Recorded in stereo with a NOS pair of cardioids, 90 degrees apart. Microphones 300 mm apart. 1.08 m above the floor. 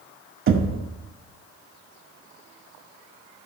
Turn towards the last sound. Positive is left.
turn(degrees=-45)